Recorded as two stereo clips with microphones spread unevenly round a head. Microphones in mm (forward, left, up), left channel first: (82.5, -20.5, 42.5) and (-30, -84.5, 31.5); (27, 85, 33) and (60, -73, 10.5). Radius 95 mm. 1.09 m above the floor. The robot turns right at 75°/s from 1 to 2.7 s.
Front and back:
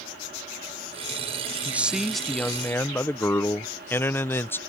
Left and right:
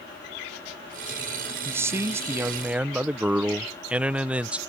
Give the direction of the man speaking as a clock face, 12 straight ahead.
4 o'clock.